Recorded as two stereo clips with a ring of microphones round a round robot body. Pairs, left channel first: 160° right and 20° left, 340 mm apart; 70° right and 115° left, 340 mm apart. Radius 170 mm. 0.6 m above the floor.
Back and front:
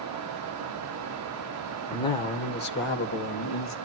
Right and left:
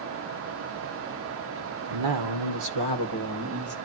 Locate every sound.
1.9 s a man speaking: 120° left, 1.7 m; by 3.8 s 160° left, 3 m